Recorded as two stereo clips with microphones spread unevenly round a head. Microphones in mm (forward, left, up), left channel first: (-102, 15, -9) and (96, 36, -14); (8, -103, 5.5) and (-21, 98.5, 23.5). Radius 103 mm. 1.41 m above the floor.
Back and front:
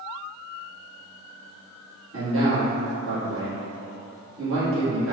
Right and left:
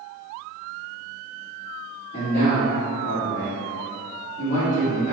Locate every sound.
2.1 s a man speaking: 25° right, 1.6 m